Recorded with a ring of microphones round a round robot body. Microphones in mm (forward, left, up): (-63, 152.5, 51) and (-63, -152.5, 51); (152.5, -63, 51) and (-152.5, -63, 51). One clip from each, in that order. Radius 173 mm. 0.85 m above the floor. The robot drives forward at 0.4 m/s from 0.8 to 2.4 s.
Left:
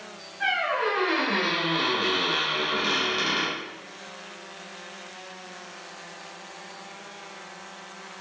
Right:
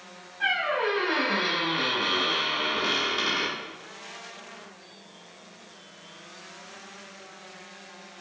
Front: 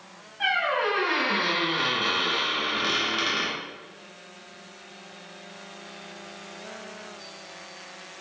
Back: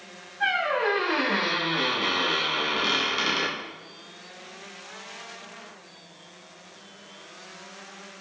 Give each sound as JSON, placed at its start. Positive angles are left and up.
{"t": 0.4, "sound": "a squeak", "azimuth_deg": -15, "distance_m": 0.7}